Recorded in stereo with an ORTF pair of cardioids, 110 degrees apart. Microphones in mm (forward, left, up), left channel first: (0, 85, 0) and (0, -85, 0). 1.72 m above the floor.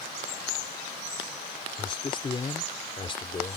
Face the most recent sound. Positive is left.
turn(degrees=30)